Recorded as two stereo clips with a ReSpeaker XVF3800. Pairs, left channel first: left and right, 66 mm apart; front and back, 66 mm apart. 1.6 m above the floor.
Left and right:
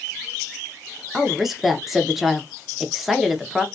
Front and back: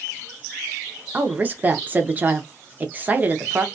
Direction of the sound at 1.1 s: 175° right.